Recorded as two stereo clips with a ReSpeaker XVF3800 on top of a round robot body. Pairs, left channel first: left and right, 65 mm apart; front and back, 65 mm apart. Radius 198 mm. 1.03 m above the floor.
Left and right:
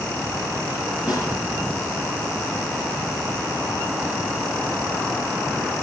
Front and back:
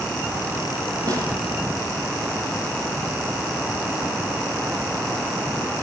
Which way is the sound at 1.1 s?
165° right.